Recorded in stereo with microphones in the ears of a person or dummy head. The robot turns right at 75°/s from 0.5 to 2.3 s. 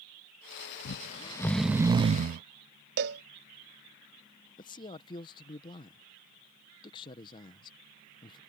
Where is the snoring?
125° left; by 2.4 s 125° right.